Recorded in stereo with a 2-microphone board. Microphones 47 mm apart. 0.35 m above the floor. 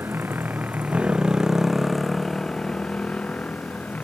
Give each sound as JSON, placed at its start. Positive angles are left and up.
{"t": 0.0, "sound": "a motorcycle", "side_deg": -50}